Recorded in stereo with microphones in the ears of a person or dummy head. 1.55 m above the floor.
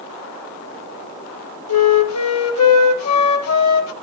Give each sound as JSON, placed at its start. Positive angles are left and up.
{"t": 1.7, "sound": "a flute", "side_deg": 85, "distance_m": 1.9}